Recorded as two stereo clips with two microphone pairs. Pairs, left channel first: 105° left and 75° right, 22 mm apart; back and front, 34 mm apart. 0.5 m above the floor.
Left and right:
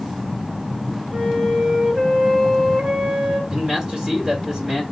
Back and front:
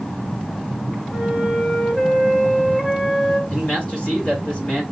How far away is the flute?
About 3 m.